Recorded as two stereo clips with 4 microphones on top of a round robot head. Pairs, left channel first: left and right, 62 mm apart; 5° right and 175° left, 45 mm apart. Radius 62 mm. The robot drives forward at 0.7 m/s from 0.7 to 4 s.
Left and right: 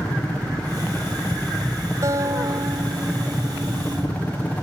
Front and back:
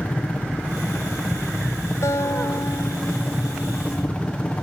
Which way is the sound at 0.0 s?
35° left.